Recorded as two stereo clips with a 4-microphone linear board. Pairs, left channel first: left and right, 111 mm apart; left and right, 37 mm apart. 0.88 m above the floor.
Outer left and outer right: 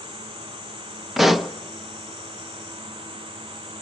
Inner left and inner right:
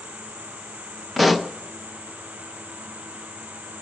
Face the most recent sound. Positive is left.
turn(degrees=0)  # may be behind; listen again after turning